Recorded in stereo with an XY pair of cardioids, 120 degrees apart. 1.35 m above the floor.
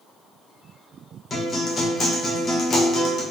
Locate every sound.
1.3 s a guitar: 40° left, 1.2 m